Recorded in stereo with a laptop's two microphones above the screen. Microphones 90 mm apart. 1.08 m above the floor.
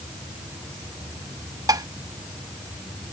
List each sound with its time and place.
1.7 s dishes clattering: 45° right (ahead or behind)